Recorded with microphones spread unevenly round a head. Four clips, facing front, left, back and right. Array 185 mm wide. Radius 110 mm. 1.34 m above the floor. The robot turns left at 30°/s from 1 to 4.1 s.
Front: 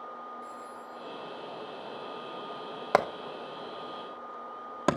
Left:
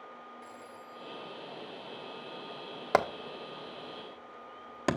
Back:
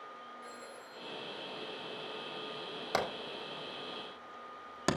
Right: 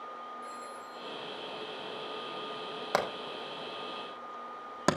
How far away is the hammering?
About 1.5 m.